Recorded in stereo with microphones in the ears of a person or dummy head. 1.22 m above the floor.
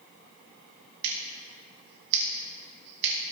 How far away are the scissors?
About 3 m.